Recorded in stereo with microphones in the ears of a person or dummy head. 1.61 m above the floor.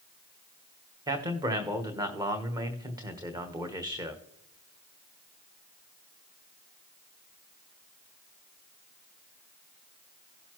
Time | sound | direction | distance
1.1 | a man speaking | 20° right (ahead or behind) | 1.1 m